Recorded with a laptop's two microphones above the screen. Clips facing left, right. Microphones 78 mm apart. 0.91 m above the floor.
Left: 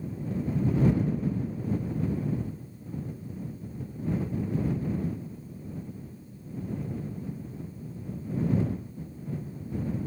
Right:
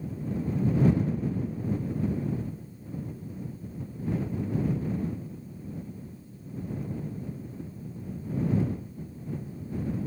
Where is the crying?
No crying in this recording.